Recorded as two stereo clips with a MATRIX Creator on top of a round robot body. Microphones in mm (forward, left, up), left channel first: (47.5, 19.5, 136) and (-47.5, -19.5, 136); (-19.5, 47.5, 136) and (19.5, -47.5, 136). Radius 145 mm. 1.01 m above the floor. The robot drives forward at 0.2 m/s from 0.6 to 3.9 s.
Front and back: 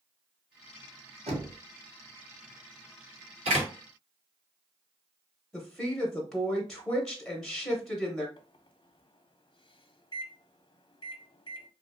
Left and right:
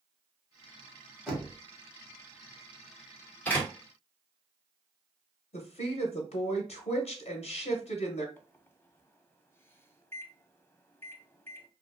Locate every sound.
1.3 s knocking: 155° right, 1.5 m; by 1.6 s 160° right, 1.5 m
3.5 s a door slam: 170° right, 1.4 m
5.5 s a woman speaking: 110° left, 0.8 m
8.4 s a microwave: 50° left, 0.6 m